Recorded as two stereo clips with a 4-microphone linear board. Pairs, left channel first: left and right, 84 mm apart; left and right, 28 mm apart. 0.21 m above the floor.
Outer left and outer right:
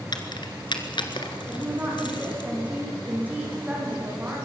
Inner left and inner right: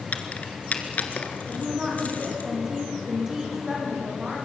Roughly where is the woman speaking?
Centre.